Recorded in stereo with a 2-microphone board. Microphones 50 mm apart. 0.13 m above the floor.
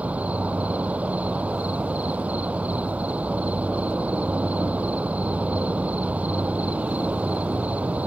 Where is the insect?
25° right (ahead or behind).